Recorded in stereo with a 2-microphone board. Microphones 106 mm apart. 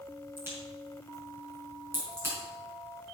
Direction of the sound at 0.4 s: 25° right (ahead or behind).